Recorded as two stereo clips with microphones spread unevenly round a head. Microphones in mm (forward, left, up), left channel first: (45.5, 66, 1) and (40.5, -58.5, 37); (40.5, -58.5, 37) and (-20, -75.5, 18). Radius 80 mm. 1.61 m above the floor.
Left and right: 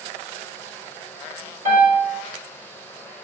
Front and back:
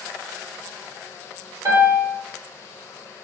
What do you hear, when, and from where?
1.6 s a piano: 140° right, 4.5 m